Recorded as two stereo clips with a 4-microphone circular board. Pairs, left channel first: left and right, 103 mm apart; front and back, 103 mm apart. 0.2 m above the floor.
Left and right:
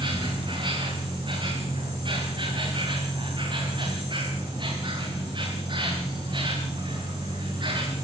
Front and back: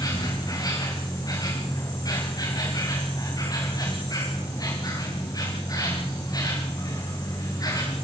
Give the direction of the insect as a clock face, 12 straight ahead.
2 o'clock.